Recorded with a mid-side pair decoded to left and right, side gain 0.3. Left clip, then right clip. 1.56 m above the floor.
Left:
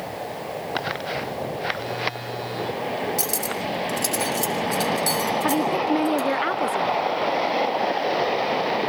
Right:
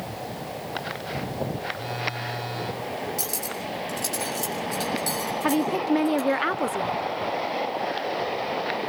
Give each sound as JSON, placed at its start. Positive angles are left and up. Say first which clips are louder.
{"t": 1.7, "sound": "a phone buzzing", "louder": "left 3 dB", "azimuth_deg": 0, "distance_m": 7.5}
{"t": 3.2, "sound": "cutlery clinking", "louder": "left 5 dB", "azimuth_deg": 45, "distance_m": 5.5}
{"t": 5.4, "sound": "a woman speaking", "louder": "right 1 dB", "azimuth_deg": -10, "distance_m": 0.9}